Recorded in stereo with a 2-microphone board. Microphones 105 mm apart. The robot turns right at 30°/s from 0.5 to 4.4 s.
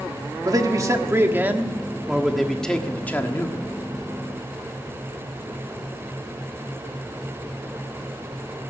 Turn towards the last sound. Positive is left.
turn(degrees=60)